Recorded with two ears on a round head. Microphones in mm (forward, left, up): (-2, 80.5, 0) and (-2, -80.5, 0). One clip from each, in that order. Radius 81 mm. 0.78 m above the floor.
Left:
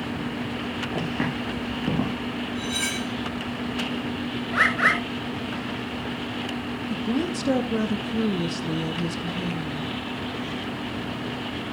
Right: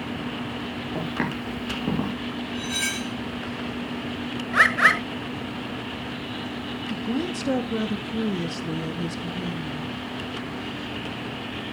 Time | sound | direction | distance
0.9 | footsteps | 85° right | 5.5 m
2.5 | cutlery clinking | 10° right (ahead or behind) | 0.9 m
4.5 | a bird | 30° right (ahead or behind) | 1.5 m
6.9 | a woman speaking | centre (ahead or behind) | 0.7 m